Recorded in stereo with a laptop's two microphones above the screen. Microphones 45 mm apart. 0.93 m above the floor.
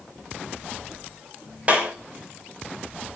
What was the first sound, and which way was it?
A clap, 30° right (ahead or behind).